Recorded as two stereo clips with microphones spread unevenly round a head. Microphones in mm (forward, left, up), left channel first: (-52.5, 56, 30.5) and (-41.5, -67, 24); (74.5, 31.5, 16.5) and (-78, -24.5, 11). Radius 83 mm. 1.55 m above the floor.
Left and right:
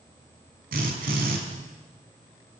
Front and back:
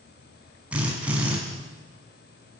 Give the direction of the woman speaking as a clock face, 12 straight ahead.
No woman speaking in this recording.